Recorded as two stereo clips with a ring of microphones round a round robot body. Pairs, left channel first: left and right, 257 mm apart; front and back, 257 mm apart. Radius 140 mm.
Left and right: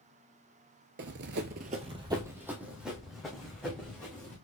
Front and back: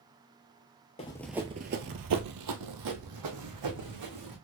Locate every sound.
1.0 s running footsteps: 60° right, 0.5 m; by 4.3 s 175° left, 2 m